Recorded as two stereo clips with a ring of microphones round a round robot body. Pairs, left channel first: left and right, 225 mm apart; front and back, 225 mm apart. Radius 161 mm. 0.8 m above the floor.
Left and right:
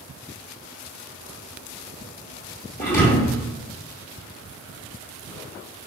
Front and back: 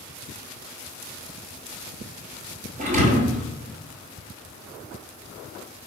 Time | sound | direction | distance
2.8 | a thud | 135° left | 1.1 m